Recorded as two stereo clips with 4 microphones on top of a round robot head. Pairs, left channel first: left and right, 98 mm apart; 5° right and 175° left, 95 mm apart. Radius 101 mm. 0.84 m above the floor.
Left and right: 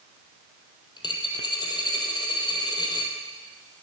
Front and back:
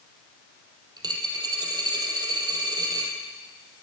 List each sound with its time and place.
1.0 s a dropped coin: 130° left, 2 m